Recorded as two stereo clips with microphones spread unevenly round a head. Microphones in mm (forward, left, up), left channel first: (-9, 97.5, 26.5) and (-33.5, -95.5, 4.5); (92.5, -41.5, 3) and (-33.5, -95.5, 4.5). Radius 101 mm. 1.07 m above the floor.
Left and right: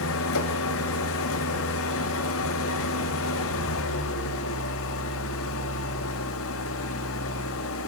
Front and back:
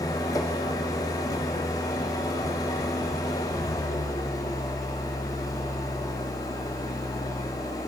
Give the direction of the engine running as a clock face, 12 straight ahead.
9 o'clock.